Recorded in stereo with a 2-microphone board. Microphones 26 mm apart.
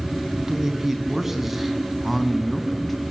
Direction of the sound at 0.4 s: 20° right (ahead or behind).